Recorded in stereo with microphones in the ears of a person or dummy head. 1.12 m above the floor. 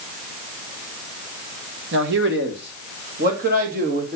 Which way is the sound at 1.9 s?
60° right (ahead or behind).